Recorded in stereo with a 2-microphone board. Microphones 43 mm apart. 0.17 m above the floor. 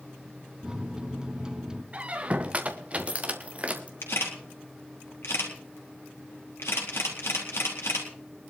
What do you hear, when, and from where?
0.6 s a microwave: 20° right (ahead or behind), 0.9 m
1.9 s a squeak: 30° right (ahead or behind), 1.3 m
4.0 s a camera shutter: 75° left (ahead or behind), 4 m